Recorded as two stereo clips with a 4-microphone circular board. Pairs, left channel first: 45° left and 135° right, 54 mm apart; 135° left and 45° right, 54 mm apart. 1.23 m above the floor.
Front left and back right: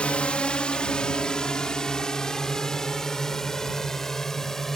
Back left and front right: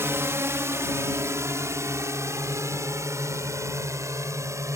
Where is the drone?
20° right; by 4.8 s 40° right.